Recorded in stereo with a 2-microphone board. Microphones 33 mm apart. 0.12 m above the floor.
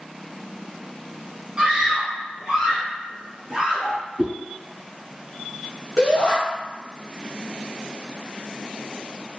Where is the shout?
25° left (ahead or behind), 1.5 m.